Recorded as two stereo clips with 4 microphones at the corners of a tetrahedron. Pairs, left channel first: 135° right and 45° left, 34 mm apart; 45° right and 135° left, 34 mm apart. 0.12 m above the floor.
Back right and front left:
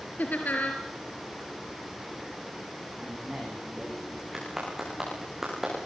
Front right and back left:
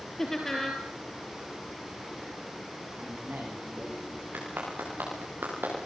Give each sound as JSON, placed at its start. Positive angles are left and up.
{"t": 0.2, "sound": "laughter", "azimuth_deg": -125, "distance_m": 3.0}
{"t": 3.0, "sound": "a man speaking", "azimuth_deg": 125, "distance_m": 10.0}
{"t": 4.3, "sound": "a clap", "azimuth_deg": 125, "distance_m": 9.5}